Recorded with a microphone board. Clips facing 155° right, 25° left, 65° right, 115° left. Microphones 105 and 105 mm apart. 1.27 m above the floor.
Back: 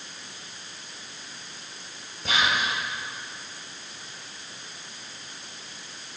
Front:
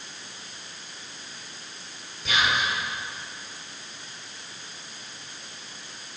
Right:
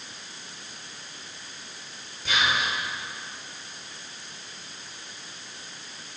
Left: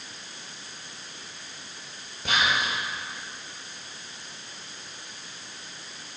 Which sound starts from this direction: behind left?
Whispering, at 2.2 s.